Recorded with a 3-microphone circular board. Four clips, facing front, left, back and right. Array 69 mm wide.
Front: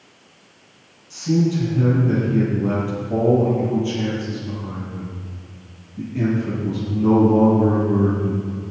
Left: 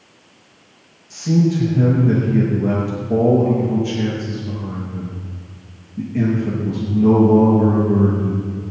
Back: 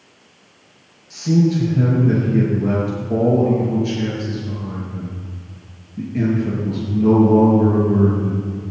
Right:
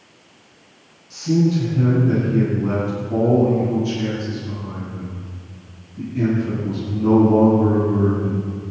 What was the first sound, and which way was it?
A man speaking, 135° left.